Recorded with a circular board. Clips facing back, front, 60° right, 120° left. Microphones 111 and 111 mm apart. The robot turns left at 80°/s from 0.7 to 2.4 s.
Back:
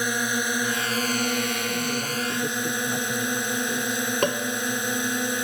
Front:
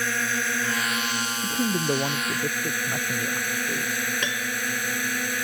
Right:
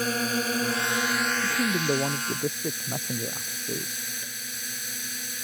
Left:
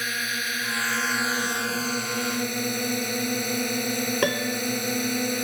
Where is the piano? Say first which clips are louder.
Back 6 dB, left 19 dB; 140° left.